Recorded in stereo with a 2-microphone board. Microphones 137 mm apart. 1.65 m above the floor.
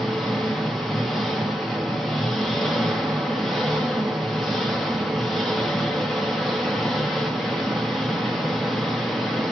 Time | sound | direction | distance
0.0 | an engine running | centre (ahead or behind) | 0.7 m